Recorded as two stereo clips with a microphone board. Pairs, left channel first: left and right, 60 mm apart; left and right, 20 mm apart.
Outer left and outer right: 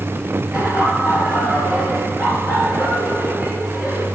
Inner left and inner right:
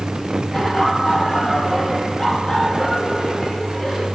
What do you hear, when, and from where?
0.5 s laughter: 20° right (ahead or behind), 4 m